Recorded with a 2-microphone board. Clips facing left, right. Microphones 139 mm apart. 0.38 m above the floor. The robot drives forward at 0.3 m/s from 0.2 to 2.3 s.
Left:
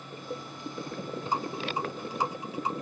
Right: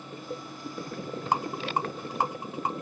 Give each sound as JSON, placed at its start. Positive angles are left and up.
{"t": 1.3, "sound": "a rattle", "side_deg": -80, "distance_m": 0.7}